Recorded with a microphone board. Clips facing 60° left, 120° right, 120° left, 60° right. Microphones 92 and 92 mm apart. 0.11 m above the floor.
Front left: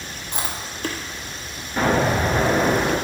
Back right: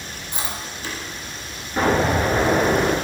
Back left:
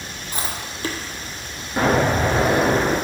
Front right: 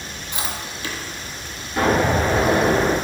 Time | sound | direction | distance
0.3 | chewing | 70° left | 0.5 m
1.8 | an explosion | 165° left | 1.2 m